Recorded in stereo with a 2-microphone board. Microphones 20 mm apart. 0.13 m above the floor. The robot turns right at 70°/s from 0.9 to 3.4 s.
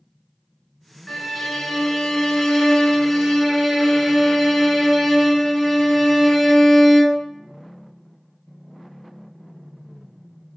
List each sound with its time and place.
1.1 s a violin: 5° left (ahead or behind), 0.7 m; by 7.2 s centre (ahead or behind), 0.7 m